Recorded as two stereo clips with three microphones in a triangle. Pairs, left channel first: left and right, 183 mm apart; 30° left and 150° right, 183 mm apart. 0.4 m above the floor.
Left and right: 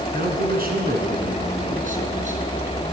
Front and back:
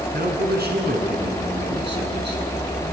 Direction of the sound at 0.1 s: 120° right.